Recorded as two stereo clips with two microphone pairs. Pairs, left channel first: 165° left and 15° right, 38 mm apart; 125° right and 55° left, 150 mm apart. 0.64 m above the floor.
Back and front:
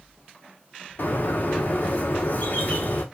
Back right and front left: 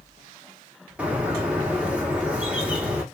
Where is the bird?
135° left, 0.8 m.